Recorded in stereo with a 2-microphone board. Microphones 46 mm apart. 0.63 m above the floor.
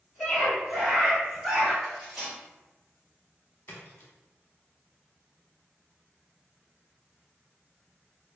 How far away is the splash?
About 0.8 m.